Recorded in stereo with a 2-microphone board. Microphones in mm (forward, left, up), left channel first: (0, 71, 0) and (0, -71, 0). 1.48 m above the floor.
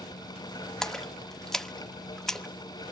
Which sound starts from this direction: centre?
A splash, at 0.8 s.